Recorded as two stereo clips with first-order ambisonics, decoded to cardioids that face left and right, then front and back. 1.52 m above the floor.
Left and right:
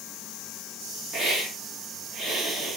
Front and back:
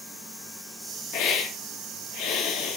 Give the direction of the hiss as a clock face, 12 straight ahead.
1 o'clock.